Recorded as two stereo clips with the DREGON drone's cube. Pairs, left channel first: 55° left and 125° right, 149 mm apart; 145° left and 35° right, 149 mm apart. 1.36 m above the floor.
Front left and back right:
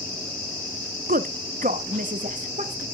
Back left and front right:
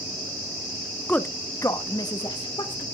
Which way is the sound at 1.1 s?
135° right.